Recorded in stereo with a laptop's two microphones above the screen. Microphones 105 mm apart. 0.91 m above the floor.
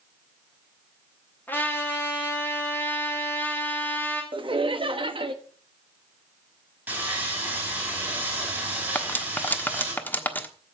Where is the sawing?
20° right (ahead or behind), 3 m.